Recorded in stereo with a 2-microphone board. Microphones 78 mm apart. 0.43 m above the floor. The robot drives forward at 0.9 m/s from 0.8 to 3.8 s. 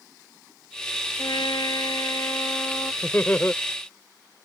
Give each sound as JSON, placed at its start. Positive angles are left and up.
{"t": 1.2, "sound": "a trumpet", "side_deg": 80}
{"t": 3.0, "sound": "laughter", "side_deg": 25}